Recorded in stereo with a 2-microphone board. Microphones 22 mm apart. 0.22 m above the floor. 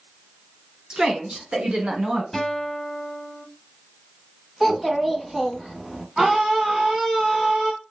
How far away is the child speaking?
About 0.9 m.